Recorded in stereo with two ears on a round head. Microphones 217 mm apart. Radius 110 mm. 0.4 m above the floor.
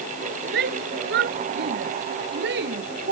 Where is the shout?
45° right (ahead or behind).